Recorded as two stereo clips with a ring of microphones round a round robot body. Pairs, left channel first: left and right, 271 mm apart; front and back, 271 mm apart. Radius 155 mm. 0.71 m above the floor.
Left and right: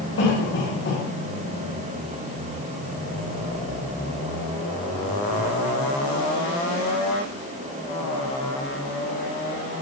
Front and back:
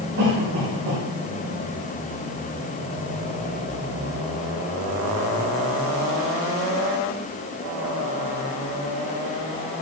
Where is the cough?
130° left, 7 m.